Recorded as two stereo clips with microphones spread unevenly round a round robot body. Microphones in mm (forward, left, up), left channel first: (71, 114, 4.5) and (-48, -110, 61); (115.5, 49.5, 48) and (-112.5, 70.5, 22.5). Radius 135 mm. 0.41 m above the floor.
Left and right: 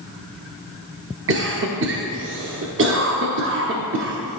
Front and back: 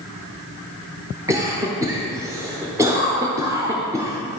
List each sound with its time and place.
1.3 s a cough: 130° right, 0.8 m